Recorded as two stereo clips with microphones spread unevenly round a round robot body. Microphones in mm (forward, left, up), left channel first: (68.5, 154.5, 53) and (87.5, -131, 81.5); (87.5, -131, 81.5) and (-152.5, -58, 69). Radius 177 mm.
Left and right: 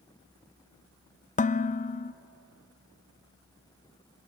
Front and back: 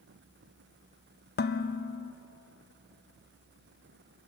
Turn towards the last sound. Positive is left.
turn(degrees=35)